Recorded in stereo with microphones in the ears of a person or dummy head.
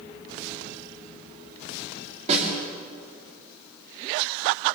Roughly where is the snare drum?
Right.